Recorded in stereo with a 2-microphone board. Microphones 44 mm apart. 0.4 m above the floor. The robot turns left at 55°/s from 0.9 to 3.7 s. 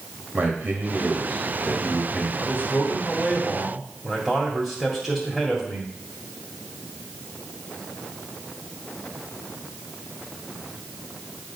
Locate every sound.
0.3 s a man speaking: 115° right, 2 m; by 2.3 s 170° left, 2 m
2.4 s a man speaking: 80° left, 1.9 m; by 5.9 s 10° left, 1.9 m